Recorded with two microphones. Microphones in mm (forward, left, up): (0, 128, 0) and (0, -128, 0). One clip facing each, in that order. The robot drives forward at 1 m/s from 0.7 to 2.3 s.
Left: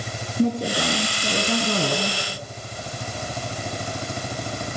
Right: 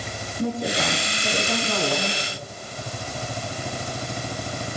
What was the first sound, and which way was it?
A woman speaking, 35° left (ahead or behind).